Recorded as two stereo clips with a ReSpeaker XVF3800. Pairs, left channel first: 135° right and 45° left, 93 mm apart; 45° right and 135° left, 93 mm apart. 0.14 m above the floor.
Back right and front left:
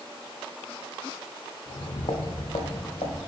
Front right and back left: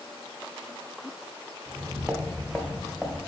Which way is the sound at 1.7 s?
160° right.